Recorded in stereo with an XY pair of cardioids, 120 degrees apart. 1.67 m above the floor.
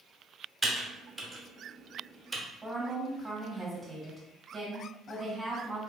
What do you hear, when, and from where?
0.6 s typing on a keyboard: 15° right, 0.8 m
2.6 s a woman speaking: 20° right, 1.1 m